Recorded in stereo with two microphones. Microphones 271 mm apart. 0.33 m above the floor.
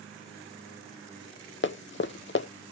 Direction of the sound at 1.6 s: 45° left (ahead or behind).